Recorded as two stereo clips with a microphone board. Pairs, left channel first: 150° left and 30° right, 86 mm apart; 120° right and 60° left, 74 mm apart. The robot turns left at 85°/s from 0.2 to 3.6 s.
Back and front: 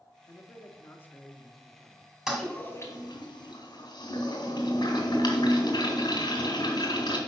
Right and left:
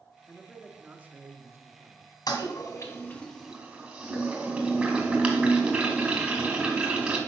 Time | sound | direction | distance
0.3 | a man speaking | 170° left | 1.1 m
2.3 | a toilet flushing | 115° right | 1.8 m